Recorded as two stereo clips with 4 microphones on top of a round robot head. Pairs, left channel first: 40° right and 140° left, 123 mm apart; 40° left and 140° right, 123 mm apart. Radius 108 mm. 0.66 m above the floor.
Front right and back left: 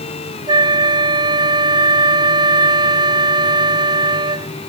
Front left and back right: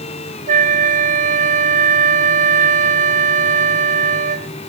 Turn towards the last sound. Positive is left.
turn(degrees=-165)